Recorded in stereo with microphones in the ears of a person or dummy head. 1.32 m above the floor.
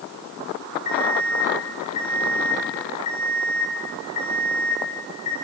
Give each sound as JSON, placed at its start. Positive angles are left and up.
{"t": 0.8, "sound": "an alarm clock", "side_deg": 40, "distance_m": 7.0}